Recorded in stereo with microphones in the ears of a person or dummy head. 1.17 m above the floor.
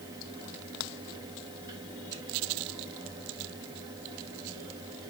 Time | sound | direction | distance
0.0 | a fan | 25° right (ahead or behind) | 2.5 m